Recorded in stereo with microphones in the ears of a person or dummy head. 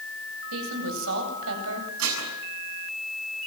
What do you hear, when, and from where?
0.5 s a woman speaking: 80° right, 8.5 m; by 1.9 s 75° right (ahead or behind), 8 m
2.0 s dishes clattering: 80° right, 6.5 m